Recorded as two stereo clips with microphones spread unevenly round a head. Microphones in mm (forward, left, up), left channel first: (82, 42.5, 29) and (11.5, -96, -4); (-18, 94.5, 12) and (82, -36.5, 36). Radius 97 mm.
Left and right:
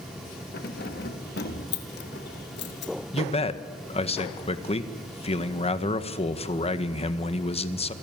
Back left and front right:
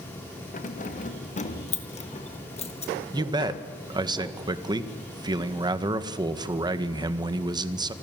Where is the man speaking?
15° left, 1.8 m.